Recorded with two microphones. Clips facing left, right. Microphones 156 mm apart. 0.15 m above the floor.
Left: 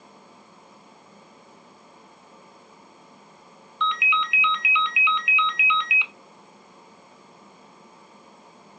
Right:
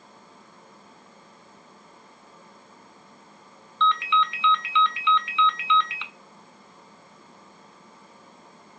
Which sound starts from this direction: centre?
A ringtone, at 3.8 s.